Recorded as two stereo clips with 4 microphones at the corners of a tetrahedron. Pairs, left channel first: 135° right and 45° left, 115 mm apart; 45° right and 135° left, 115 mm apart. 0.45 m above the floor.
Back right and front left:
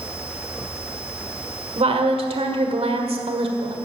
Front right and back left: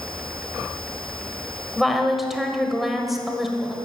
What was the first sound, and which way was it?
A woman speaking, 45° left.